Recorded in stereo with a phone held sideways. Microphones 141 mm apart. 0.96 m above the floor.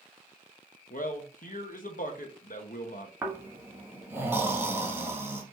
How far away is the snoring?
About 1.1 m.